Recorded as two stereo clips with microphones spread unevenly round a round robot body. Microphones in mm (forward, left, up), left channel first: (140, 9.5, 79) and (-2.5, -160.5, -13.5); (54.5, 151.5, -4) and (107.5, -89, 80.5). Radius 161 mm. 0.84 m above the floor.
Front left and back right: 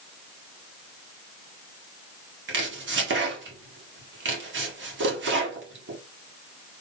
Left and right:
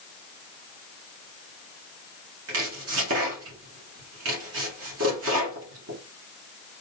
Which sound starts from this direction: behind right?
Chopping, at 2.5 s.